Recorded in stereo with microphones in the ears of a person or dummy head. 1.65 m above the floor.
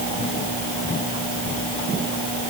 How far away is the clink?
No clink in this recording.